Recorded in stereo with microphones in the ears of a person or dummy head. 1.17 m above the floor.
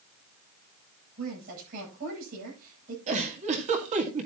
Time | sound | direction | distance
1.2 | a woman speaking | 45° right (ahead or behind) | 9.5 m
3.1 | a giggle | 35° right (ahead or behind) | 2 m